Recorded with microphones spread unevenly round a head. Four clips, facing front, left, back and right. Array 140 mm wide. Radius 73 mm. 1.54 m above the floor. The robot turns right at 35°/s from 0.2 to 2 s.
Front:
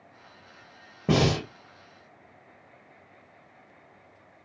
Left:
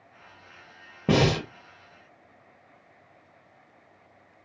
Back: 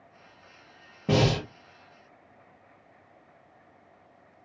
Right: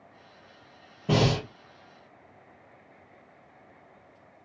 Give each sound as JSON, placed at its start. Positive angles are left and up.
{"t": 1.1, "sound": "breathing", "azimuth_deg": 70, "distance_m": 0.9}